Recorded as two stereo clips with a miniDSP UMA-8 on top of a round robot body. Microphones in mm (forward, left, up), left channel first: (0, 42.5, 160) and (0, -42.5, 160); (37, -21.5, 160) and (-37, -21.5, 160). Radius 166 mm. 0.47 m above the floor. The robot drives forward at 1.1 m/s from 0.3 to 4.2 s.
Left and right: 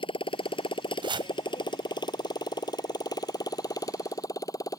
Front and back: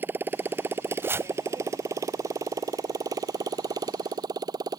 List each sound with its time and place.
0.0 s a motorcycle: 115° left; by 4.8 s 140° left
1.0 s chopping: 120° right; by 1.3 s 125° right